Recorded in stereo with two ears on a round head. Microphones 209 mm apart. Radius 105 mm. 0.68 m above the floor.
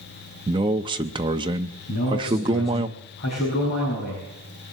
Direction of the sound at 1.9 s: 45° left (ahead or behind).